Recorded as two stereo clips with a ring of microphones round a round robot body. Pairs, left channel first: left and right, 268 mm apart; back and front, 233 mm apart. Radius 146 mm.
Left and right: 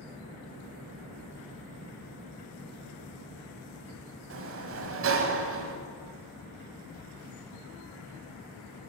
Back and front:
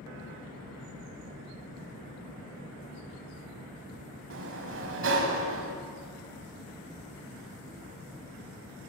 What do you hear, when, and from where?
4.3 s a sliding door: 45° right, 0.6 m